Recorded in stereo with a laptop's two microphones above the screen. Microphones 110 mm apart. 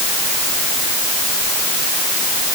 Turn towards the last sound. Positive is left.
No sound to turn to.